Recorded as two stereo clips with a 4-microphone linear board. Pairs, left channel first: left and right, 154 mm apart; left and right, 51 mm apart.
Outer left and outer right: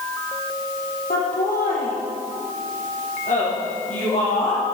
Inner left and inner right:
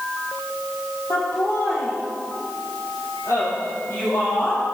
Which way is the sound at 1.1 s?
75° left (ahead or behind).